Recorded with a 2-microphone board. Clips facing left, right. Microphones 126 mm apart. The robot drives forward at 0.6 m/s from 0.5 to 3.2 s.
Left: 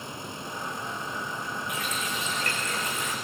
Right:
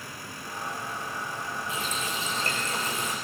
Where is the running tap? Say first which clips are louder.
Right 1 dB; 30° right (ahead or behind), 7.5 m; by 3.1 s 35° right (ahead or behind), 6.5 m.